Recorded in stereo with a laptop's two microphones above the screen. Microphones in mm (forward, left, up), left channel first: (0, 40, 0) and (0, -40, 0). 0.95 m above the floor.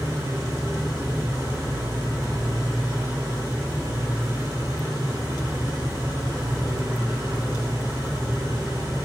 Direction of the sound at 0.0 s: 45° right (ahead or behind).